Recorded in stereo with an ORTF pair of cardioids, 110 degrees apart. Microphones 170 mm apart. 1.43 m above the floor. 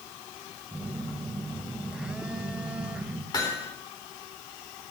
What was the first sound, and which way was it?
A phone buzzing, 5° right.